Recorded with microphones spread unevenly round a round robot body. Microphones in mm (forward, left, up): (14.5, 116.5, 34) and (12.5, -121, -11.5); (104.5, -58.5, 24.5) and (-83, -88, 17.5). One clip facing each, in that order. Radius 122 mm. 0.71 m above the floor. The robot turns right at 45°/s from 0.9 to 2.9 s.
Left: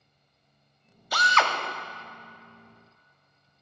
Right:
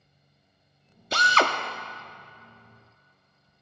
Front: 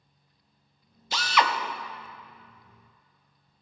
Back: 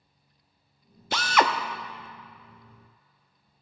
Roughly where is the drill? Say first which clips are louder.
Right 3 dB, back 2 dB; behind right.